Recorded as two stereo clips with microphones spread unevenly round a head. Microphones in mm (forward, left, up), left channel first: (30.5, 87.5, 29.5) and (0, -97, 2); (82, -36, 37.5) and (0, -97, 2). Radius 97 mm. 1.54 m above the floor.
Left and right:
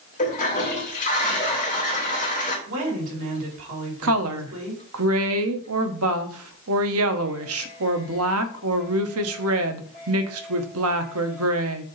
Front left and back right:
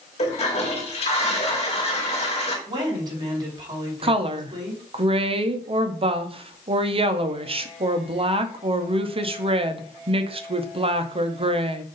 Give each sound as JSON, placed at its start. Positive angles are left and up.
{"t": 0.2, "sound": "a toilet flushing", "azimuth_deg": 30, "distance_m": 2.5}
{"t": 2.7, "sound": "a woman speaking", "azimuth_deg": -100, "distance_m": 4.5}
{"t": 4.0, "sound": "a woman speaking", "azimuth_deg": -110, "distance_m": 1.1}